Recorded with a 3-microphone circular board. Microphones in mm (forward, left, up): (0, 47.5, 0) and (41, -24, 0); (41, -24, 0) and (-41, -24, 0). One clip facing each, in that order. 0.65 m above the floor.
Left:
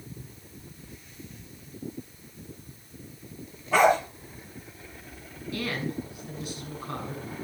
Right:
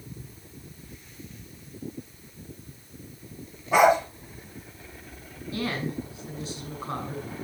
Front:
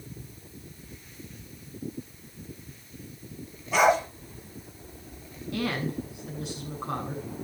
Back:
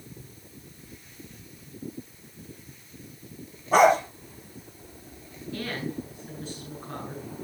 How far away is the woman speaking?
About 7.5 m.